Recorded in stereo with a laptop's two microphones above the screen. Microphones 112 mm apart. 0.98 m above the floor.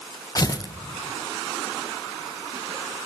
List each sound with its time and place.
0.3 s tearing paper: 35° left (ahead or behind), 0.6 m